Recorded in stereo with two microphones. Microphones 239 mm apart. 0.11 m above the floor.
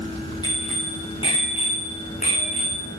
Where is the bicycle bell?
20° left (ahead or behind), 10 m; by 2.9 s 35° left (ahead or behind), 7.5 m.